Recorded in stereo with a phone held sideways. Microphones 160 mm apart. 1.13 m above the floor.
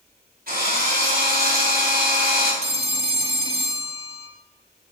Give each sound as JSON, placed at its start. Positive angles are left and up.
{"t": 0.5, "sound": "a drill", "side_deg": -70, "distance_m": 4.5}
{"t": 2.6, "sound": "a phone ringing", "side_deg": -40, "distance_m": 1.2}